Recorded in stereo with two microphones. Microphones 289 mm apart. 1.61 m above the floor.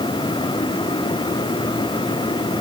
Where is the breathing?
I don't hear breathing.